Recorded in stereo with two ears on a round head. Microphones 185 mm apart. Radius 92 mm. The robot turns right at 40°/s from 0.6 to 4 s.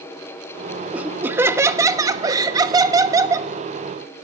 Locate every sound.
0.9 s laughter: 5° right (ahead or behind), 1.0 m; by 3.5 s 15° right (ahead or behind), 1.0 m